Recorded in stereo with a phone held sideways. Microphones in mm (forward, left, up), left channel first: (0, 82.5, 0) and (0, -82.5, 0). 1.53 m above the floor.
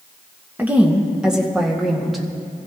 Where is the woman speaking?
10° right (ahead or behind), 1.7 m; by 2.2 s centre (ahead or behind), 2.5 m.